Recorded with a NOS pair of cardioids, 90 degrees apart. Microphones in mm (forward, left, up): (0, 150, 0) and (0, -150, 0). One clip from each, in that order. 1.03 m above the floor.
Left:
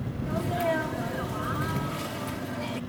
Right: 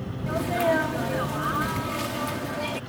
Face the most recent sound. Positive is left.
turn(degrees=-35)